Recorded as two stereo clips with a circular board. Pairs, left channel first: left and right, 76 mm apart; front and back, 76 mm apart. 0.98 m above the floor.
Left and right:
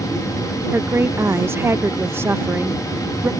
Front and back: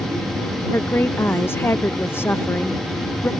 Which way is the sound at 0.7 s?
45° right.